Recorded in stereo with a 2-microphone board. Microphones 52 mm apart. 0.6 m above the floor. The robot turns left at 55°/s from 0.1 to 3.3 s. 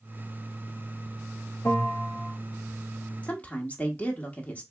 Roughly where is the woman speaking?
Left.